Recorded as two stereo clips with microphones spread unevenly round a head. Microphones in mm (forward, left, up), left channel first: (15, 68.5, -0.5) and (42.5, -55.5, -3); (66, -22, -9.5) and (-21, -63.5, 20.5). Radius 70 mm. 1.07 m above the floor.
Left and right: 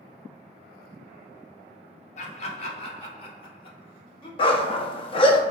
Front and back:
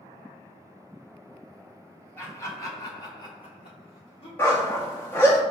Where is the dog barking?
110° left, 0.5 m.